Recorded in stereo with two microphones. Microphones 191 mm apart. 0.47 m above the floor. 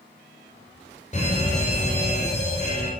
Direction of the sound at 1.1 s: 35° left (ahead or behind).